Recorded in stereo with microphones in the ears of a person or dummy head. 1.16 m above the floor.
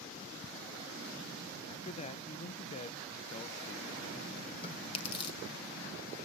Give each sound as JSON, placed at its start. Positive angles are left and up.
{"t": 1.7, "sound": "a man speaking", "side_deg": 35, "distance_m": 0.7}
{"t": 4.6, "sound": "chewing", "side_deg": 25, "distance_m": 1.8}